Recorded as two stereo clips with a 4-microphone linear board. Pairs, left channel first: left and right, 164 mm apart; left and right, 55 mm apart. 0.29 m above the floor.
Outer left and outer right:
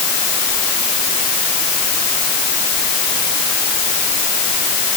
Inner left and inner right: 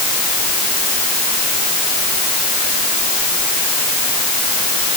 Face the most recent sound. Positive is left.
No sound to turn to.